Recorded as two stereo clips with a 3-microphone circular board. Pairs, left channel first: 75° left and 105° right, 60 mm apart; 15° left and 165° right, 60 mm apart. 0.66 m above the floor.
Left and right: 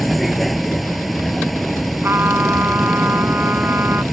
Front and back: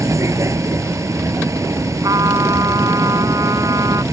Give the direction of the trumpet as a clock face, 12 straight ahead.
5 o'clock.